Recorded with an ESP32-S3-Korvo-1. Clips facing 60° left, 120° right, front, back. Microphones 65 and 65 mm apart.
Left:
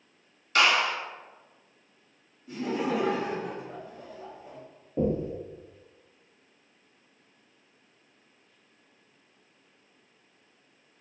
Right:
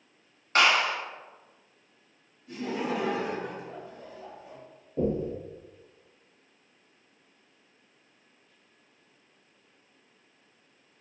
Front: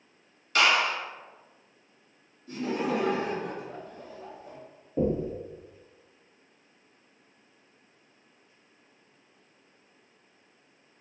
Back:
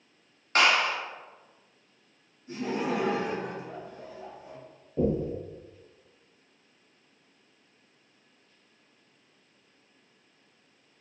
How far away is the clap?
About 1.0 m.